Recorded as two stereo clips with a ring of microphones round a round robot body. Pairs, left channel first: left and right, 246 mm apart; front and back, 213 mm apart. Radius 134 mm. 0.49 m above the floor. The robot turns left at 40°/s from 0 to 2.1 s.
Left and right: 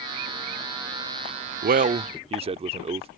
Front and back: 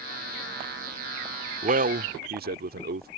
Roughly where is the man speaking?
Behind right.